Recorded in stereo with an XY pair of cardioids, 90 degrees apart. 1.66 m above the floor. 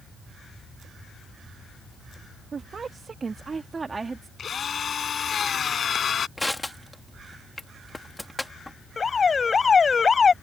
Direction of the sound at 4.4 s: 55° left.